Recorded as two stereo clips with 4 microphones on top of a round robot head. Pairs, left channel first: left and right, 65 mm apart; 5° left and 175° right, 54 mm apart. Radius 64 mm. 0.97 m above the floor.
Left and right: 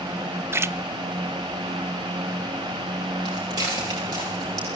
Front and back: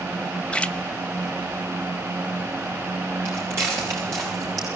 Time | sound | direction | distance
0.5 | a splash | 60° right | 1.0 m
3.2 | footsteps | 120° right | 8.5 m